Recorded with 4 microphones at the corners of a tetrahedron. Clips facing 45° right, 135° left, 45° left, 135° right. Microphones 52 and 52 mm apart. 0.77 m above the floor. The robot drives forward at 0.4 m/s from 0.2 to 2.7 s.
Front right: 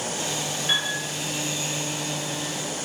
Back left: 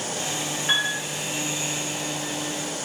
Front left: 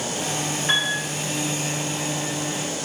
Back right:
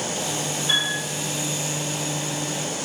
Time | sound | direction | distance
0.7 | a piano | 75° left | 0.6 m